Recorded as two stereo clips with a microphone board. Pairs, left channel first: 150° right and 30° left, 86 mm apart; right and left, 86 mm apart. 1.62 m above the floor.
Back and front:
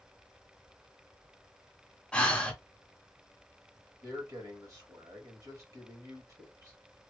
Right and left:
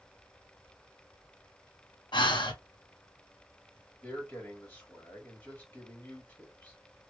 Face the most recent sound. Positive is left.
turn(degrees=-20)